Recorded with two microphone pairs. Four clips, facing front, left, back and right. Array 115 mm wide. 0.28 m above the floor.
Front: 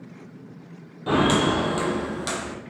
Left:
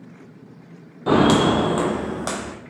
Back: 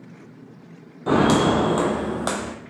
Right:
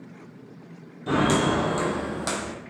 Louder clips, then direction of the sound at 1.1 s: Left 6 dB, back 3 dB; 100° left.